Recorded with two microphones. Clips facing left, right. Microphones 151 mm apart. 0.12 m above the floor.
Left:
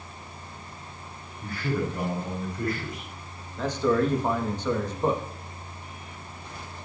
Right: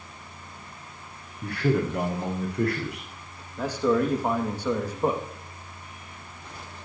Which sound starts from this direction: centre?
A man speaking, at 3.6 s.